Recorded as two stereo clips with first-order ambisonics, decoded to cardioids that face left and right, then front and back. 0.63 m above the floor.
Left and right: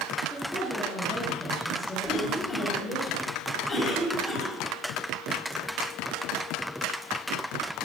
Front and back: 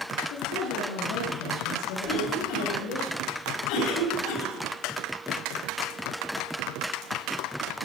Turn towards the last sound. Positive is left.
turn(degrees=30)